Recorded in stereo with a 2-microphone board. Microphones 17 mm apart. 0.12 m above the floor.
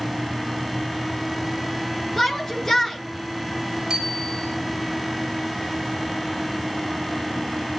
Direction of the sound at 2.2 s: 25° left (ahead or behind).